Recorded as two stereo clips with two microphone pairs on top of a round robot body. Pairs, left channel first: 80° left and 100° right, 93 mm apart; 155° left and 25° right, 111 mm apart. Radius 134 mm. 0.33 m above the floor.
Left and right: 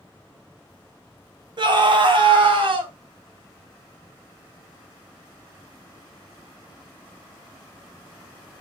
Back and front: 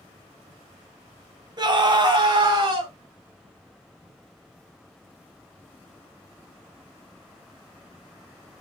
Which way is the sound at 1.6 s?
70° right.